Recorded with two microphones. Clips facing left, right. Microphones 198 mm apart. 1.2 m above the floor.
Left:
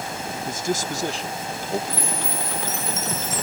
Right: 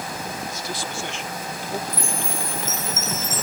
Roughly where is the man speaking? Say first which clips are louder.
Left 6 dB; left.